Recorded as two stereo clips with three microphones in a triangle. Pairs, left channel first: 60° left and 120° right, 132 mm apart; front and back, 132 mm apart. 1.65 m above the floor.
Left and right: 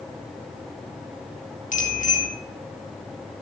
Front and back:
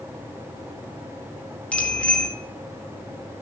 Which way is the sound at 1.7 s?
80° left.